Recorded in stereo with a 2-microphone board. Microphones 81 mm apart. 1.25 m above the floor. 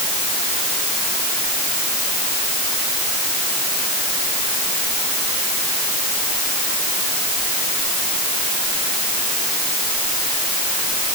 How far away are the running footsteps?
No running footsteps in this recording.